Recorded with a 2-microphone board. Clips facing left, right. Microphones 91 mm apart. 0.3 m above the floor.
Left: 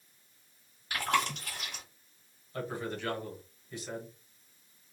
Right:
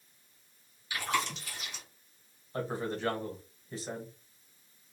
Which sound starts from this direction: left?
Chewing, at 0.9 s.